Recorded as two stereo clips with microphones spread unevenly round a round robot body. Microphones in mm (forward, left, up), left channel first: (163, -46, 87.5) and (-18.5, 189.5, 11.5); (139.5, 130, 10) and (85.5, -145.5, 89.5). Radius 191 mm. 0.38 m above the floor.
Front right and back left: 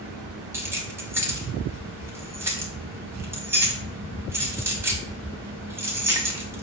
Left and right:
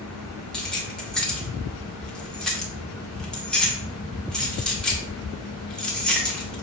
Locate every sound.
0.5 s keys jangling: 115° left, 0.7 m